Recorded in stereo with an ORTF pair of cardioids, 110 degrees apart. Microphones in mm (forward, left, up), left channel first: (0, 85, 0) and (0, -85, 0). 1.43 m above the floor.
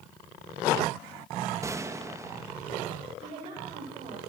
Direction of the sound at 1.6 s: 20° right.